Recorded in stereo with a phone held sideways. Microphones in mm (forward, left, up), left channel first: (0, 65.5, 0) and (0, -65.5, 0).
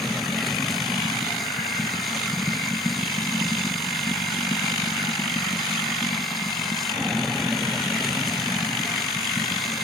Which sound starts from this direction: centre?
Running water, at 0.0 s.